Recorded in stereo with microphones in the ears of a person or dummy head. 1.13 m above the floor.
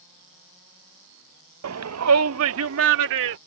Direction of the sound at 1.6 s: 70° right (ahead or behind).